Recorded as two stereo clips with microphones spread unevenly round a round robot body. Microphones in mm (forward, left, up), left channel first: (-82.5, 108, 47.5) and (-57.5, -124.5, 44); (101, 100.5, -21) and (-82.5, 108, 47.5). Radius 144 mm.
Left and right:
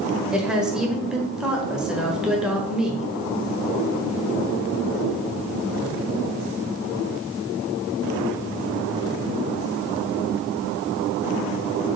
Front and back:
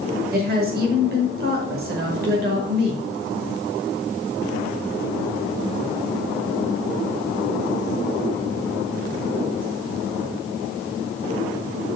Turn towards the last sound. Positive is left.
turn(degrees=-165)